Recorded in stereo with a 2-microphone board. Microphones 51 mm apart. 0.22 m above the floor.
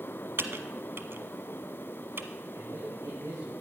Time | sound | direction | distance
0.4 | typing on a keyboard | 50° right (ahead or behind) | 1.1 m
2.5 | a man speaking | 75° right (ahead or behind) | 4.5 m